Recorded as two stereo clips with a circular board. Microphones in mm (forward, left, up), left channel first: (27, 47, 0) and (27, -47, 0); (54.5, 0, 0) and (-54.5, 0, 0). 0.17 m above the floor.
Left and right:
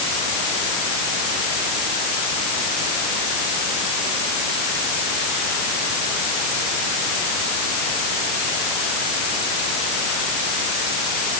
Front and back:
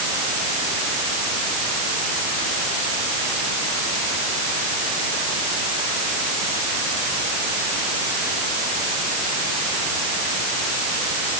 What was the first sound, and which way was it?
Only background noise.